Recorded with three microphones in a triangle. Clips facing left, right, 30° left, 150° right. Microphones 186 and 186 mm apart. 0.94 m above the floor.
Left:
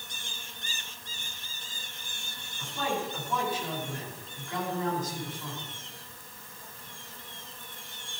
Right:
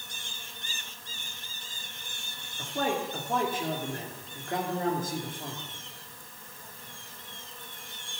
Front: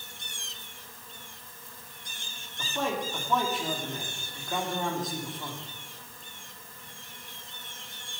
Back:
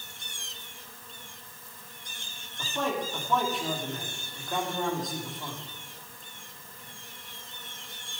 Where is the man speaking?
60° right, 2.5 m.